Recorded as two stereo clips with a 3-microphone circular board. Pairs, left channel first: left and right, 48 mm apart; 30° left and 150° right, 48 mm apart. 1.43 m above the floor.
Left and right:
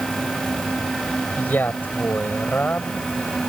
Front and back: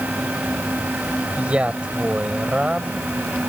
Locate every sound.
1.4 s a man speaking: 140° left